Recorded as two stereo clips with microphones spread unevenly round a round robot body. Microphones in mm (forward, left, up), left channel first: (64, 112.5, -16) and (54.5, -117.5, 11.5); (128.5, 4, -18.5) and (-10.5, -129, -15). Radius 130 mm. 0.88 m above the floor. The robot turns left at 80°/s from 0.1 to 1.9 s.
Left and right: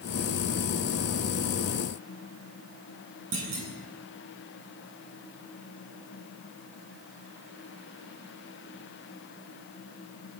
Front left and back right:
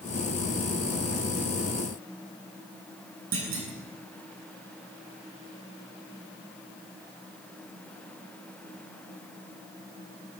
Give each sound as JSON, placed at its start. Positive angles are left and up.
{"t": 3.3, "sound": "a clunk", "azimuth_deg": -135, "distance_m": 9.0}